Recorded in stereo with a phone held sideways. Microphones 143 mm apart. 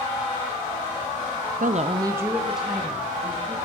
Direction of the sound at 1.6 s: 75° right (ahead or behind).